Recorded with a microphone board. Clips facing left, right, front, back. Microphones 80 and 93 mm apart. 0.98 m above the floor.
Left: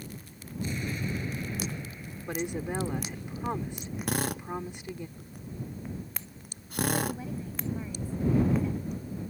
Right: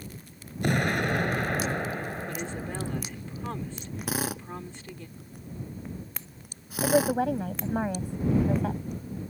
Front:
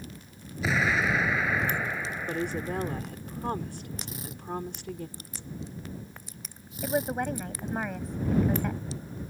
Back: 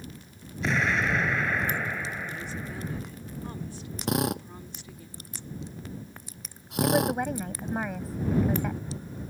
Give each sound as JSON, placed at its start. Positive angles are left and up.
{"t": 0.6, "sound": "an explosion", "azimuth_deg": -85}
{"t": 2.3, "sound": "a woman speaking", "azimuth_deg": 15}
{"t": 4.1, "sound": "a drill", "azimuth_deg": 180}
{"t": 6.8, "sound": "a woman speaking", "azimuth_deg": -90}